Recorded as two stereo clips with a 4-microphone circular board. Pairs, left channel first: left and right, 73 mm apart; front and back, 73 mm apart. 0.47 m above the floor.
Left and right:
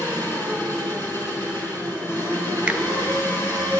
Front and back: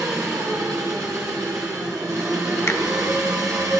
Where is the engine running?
145° left, 5 m.